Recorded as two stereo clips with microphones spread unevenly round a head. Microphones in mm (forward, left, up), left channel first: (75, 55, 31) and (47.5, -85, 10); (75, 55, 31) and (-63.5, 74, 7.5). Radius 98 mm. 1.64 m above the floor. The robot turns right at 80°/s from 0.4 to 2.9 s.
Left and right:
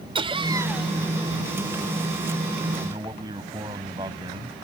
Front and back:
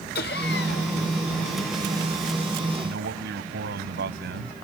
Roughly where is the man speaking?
Behind.